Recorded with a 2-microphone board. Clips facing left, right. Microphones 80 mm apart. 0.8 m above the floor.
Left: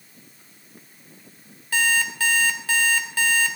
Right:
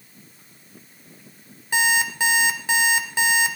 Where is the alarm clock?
20° right (ahead or behind), 1.6 m.